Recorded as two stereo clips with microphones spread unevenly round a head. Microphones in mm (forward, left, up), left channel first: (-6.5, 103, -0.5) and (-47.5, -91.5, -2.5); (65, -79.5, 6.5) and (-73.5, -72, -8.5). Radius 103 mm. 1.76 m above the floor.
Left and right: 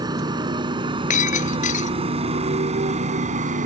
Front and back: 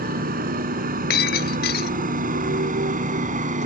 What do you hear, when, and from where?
0.0 s a motorcycle: 170° right; by 3.7 s 155° right
1.1 s breaking glass: 20° left